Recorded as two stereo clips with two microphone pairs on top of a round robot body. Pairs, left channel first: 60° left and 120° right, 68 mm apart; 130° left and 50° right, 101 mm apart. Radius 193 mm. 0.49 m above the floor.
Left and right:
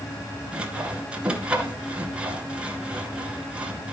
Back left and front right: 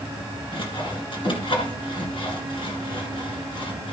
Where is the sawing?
170° left, 2 m.